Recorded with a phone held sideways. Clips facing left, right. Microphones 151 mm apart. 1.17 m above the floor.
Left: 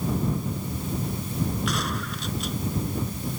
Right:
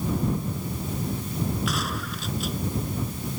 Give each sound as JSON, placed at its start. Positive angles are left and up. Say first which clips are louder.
{"t": 1.7, "sound": "a gunshot", "louder": "left 1 dB", "side_deg": 0}